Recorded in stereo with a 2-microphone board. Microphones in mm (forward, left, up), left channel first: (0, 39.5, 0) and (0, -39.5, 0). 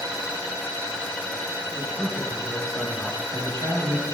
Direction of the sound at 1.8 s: 50° left (ahead or behind).